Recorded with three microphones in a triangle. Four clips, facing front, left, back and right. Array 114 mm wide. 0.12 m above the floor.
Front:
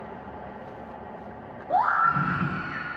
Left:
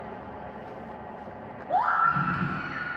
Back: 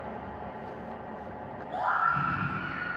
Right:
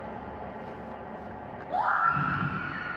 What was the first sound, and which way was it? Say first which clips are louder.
A scream: left 2 dB, front 6 dB; 35° left.